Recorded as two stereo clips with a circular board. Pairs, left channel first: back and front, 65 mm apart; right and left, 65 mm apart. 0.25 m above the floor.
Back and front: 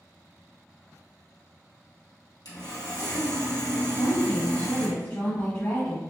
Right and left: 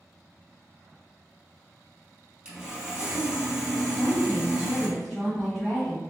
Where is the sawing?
170° left, 1.9 m.